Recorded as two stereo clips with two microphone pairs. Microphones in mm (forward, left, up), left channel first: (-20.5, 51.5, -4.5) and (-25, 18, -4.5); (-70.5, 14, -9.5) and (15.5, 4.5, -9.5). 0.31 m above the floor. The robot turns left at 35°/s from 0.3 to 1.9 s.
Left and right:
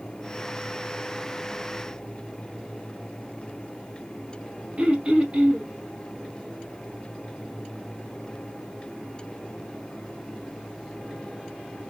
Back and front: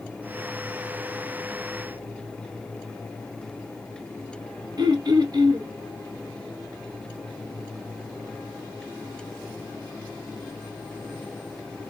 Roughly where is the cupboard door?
I don't hear a cupboard door.